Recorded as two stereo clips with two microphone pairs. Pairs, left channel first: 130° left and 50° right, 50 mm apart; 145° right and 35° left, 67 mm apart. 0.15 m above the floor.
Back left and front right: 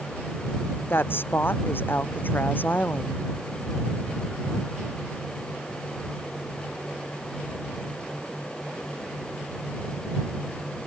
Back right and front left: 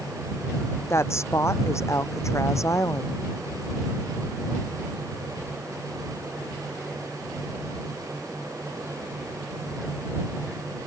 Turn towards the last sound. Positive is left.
turn(degrees=180)